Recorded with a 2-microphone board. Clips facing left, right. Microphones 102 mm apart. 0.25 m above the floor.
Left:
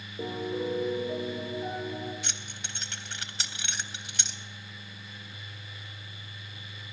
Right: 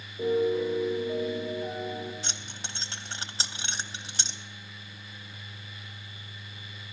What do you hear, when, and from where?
0.2 s a piano: 30° left (ahead or behind), 8 m
2.2 s keys jangling: 30° right (ahead or behind), 0.7 m